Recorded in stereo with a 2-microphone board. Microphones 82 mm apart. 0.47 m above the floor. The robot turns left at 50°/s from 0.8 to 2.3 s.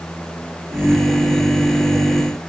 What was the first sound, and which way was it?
Only background noise.